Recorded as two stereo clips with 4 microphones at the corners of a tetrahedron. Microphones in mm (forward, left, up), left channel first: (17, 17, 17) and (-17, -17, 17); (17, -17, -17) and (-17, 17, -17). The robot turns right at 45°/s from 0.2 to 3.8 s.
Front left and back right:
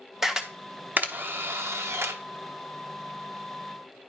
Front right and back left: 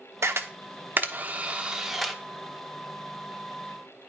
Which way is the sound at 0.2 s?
140° left.